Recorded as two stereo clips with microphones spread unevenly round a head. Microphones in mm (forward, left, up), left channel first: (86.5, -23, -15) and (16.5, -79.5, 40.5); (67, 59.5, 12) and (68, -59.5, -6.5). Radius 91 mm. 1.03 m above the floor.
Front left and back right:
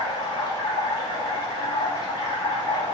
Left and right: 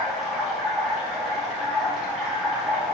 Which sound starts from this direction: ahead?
Running water, at 0.0 s.